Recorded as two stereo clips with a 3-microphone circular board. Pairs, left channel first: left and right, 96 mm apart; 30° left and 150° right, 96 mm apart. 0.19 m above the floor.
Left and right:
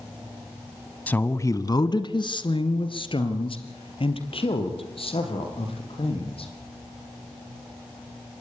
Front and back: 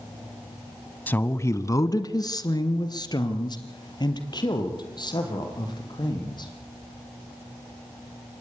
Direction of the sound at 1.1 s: 55° left.